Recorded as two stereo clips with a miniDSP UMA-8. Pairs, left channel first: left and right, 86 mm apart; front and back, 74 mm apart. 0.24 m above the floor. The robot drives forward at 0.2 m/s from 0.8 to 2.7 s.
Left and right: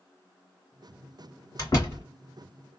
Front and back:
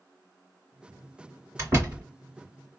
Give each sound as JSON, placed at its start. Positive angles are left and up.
{"t": 1.6, "sound": "a door slam", "azimuth_deg": 135, "distance_m": 2.5}